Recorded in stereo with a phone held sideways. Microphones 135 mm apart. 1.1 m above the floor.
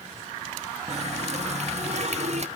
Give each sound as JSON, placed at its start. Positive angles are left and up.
{"t": 0.9, "sound": "a running tap", "side_deg": -55, "distance_m": 0.7}